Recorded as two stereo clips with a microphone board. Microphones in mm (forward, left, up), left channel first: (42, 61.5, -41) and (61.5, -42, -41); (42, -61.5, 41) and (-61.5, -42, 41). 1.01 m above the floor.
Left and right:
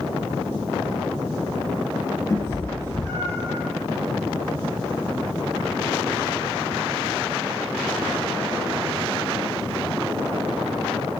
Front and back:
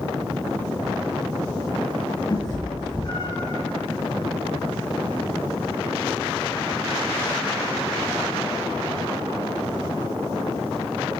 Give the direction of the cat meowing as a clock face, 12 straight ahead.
11 o'clock.